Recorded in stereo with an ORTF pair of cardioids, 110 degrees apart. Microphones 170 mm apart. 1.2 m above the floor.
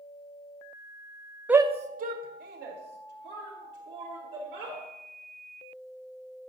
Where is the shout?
5° right, 0.6 m; by 4.8 s 75° right, 4.5 m.